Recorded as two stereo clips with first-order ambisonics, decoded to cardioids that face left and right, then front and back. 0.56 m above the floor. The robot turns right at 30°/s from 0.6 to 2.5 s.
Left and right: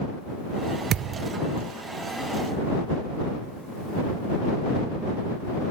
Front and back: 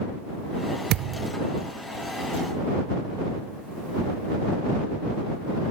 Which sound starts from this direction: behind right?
A thud, at 0.9 s.